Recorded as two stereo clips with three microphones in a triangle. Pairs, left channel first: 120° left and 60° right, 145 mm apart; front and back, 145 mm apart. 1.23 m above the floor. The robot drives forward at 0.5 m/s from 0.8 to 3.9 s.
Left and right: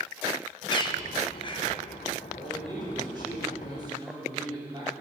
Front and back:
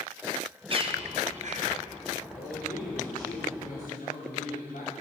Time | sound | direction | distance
0.7 | a bird | 155° left | 0.7 m
2.3 | a man speaking | straight ahead | 4.5 m